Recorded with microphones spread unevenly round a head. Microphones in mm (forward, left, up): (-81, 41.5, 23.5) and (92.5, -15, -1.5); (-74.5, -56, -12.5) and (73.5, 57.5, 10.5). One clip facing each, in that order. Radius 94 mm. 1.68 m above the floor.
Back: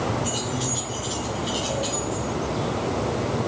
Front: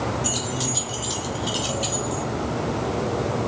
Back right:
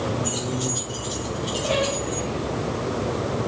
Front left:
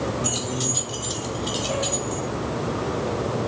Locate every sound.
0.2 s keys jangling: 10° left, 3 m; by 2.3 s 5° left, 4 m